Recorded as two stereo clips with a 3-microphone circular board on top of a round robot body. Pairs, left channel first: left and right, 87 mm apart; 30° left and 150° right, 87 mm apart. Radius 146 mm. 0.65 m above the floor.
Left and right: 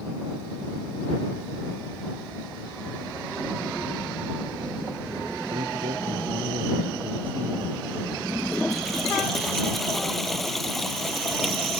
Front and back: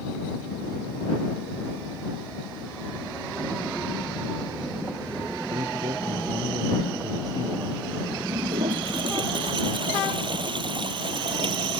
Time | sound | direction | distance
5.5 | a man speaking | 105° right | ?
8.3 | a toilet flushing | 175° left | ?